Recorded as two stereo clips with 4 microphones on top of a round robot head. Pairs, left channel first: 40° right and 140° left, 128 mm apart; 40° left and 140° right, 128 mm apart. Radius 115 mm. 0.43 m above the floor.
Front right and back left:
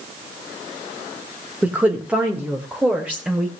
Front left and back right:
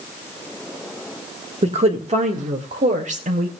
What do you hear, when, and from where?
1.6 s a woman speaking: 145° right, 1.9 m